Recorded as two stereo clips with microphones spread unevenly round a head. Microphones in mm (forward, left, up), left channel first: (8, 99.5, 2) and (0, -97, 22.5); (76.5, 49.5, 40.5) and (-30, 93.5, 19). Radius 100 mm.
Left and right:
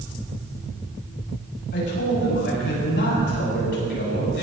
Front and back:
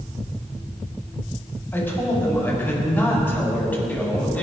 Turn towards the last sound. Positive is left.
turn(degrees=55)